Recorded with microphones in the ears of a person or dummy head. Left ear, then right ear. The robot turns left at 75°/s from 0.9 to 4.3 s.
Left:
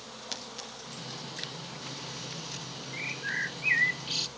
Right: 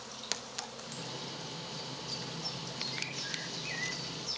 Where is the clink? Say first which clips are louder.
Even; 25° right (ahead or behind), 1.2 m; by 1.1 s 15° right (ahead or behind), 1.2 m.